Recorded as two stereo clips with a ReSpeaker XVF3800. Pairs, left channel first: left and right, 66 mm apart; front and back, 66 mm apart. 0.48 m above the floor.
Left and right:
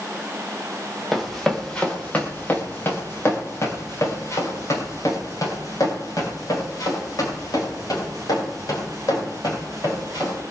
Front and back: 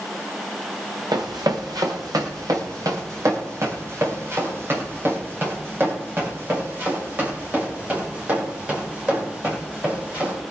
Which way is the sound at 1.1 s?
Straight behind.